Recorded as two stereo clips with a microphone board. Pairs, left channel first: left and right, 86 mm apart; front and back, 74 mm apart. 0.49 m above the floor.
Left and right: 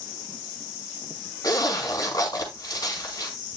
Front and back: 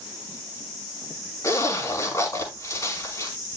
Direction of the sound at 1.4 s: 45° left.